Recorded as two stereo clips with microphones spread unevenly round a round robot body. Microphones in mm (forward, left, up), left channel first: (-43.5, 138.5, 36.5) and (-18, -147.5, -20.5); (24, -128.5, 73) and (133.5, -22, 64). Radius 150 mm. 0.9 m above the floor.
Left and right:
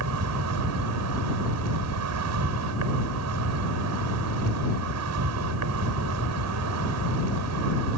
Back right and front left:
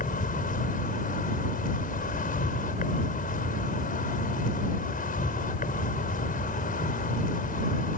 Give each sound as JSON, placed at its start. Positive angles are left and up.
{"t": 0.0, "sound": "an insect", "azimuth_deg": -115}